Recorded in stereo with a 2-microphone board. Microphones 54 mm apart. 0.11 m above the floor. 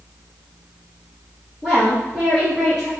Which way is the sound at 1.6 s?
15° right (ahead or behind).